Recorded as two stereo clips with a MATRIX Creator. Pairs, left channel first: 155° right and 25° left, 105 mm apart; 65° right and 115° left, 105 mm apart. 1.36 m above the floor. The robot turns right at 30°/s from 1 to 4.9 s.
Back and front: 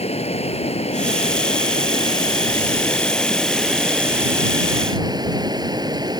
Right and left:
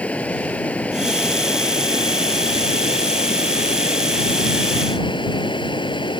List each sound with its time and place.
0.0 s running water: 145° right; by 6.2 s 30° right